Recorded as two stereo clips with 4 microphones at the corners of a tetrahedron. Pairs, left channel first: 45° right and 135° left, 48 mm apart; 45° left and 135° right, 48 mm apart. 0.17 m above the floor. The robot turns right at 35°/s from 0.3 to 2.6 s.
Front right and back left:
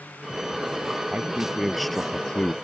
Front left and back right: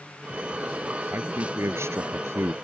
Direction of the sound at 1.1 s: 160° right.